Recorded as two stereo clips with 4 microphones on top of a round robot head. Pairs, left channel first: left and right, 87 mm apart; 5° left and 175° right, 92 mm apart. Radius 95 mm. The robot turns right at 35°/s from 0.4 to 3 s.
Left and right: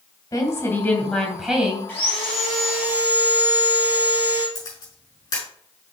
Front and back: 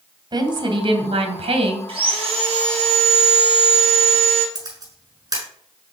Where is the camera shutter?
140° left, 6 m.